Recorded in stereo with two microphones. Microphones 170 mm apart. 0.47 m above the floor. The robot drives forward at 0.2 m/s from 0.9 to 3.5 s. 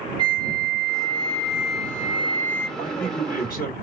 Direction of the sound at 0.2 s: 30° right (ahead or behind).